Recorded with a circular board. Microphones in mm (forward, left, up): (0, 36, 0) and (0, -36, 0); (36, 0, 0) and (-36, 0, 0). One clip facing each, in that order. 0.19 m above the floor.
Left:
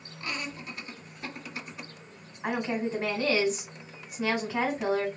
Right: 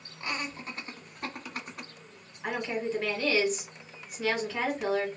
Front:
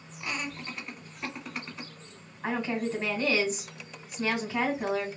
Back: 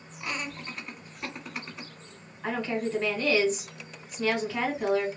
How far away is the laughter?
About 1.1 m.